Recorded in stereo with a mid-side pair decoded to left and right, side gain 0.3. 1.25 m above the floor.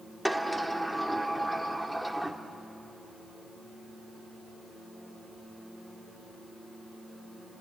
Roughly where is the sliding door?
Ahead.